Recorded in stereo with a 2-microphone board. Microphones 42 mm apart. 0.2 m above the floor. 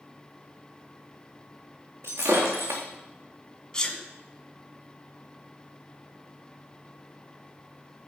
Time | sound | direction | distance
2.0 | breaking glass | 75° right (ahead or behind) | 3.5 m
3.7 | a sneeze | 20° left (ahead or behind) | 2 m